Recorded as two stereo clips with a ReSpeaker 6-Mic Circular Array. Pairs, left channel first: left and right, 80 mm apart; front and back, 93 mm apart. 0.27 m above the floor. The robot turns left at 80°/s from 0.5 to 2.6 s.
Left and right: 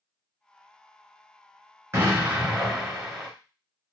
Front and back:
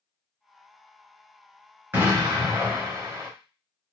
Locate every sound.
1.9 s an explosion: 125° right, 1.3 m; by 3.3 s straight behind, 1.3 m